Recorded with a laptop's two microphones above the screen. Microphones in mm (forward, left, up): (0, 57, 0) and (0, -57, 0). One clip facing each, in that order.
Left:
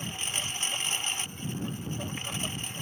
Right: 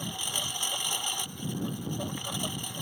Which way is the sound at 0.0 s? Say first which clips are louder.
Right 1 dB; 10° right (ahead or behind).